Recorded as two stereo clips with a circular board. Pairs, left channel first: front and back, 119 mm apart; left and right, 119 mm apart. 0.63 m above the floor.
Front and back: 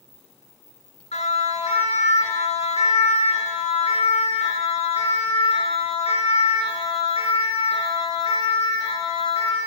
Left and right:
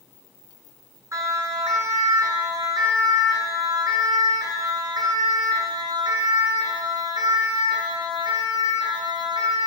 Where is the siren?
25° right, 8 m; by 9.7 s 40° right, 13 m.